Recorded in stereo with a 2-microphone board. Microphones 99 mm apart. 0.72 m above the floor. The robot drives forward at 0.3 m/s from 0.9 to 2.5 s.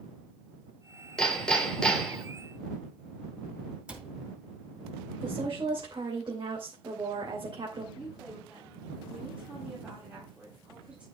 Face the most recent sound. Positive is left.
turn(degrees=-10)  # may be behind; listen again after turning